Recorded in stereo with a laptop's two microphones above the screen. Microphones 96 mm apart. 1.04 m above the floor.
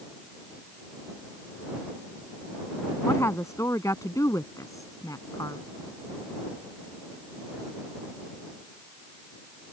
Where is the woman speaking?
30° left (ahead or behind); by 5.6 s 40° left (ahead or behind).